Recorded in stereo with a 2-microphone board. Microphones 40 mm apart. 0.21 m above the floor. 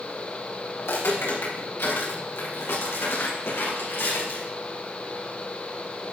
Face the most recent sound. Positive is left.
turn(degrees=75)  # may be behind; listen again after turning